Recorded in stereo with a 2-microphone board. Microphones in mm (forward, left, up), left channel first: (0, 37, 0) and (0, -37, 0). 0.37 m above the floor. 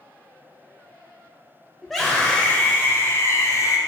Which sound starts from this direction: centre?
A scream, at 1.8 s.